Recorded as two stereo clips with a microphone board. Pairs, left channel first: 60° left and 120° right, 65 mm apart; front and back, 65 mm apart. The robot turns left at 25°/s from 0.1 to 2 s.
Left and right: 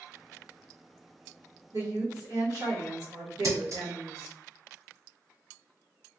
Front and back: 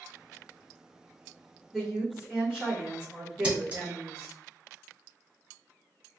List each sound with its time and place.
1.7 s a woman speaking: 95° right, 2.0 m; by 4.3 s 100° right, 2.0 m
3.4 s scissors: 115° right, 1.6 m